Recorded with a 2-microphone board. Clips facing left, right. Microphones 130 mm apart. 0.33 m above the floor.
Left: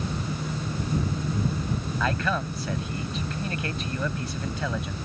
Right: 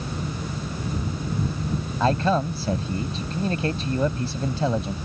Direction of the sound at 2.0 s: 35° right (ahead or behind).